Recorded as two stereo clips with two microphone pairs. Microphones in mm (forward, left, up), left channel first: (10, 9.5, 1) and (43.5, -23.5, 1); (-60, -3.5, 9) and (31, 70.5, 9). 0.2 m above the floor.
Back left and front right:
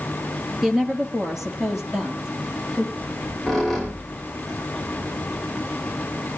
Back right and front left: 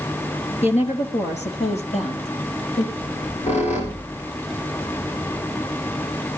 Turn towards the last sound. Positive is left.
turn(degrees=-135)